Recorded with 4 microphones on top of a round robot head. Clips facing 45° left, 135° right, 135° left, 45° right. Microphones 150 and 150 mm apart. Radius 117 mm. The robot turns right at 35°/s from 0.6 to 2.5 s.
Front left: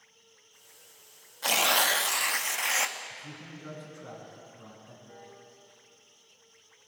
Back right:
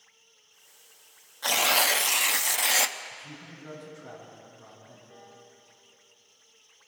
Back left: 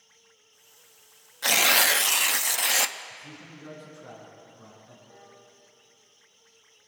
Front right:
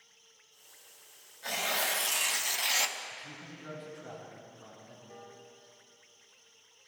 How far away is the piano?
About 8 m.